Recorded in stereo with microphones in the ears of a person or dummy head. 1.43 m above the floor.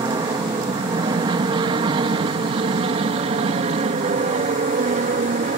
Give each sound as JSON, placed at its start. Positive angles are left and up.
{"t": 0.0, "sound": "an aircraft", "side_deg": -20}